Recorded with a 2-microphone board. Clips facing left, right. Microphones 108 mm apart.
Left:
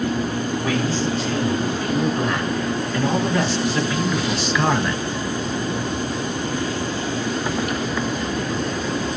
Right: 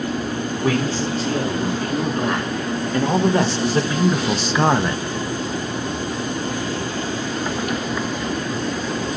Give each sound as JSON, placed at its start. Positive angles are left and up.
{"t": 0.6, "sound": "a man speaking", "side_deg": -35, "distance_m": 3.0}